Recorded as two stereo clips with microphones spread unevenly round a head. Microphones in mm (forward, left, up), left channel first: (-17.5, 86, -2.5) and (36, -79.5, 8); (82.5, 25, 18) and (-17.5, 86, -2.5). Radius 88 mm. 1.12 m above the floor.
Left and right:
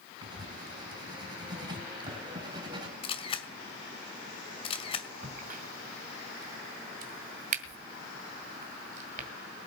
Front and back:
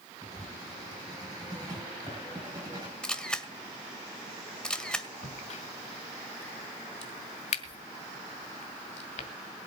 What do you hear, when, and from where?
0.2 s writing: 140° right, 4.5 m
3.0 s a camera shutter: 50° left, 2.0 m
5.2 s a crack: 30° right, 2 m